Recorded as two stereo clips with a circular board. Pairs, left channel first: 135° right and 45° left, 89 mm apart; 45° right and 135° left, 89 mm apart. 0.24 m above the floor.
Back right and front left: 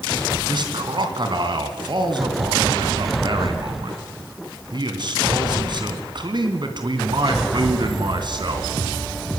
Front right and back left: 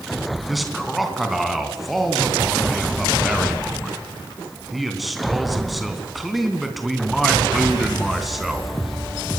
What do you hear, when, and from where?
0.5 s a man speaking: 45° left, 3 m